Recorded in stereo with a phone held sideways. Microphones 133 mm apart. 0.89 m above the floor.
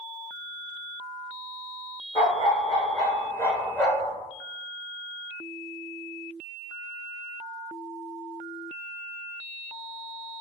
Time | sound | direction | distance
2.1 | a dog barking | 45° left (ahead or behind) | 1.5 m